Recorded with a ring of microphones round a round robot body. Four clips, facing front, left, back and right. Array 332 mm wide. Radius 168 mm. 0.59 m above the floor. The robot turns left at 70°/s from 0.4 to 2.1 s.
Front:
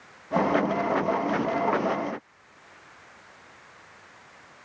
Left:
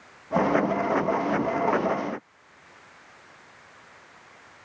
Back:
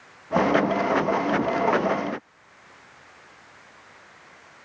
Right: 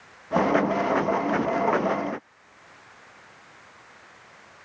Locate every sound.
Only background noise.